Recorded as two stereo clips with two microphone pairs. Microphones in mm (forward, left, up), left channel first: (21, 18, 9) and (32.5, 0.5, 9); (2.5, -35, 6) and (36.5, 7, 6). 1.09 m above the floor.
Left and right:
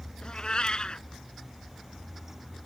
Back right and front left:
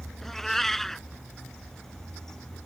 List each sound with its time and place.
0.2 s a cat meowing: 150° left